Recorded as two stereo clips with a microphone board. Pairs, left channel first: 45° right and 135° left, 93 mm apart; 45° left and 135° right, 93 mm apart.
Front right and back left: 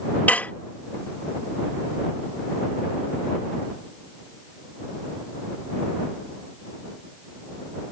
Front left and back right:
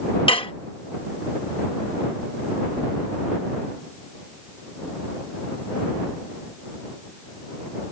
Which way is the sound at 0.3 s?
30° left.